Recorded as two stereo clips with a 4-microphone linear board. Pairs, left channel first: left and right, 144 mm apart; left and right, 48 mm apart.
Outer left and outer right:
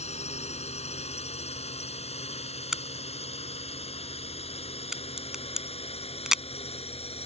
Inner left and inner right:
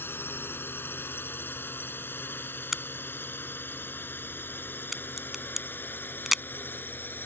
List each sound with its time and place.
0.0 s a drone: 50° left (ahead or behind); by 7.3 s 45° left (ahead or behind)
2.7 s a crack: 5° right (ahead or behind)